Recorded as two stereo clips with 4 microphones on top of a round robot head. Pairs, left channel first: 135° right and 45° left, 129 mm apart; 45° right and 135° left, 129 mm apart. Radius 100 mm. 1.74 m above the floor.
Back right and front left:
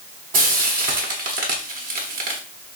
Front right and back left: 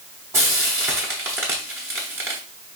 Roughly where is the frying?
Ahead left.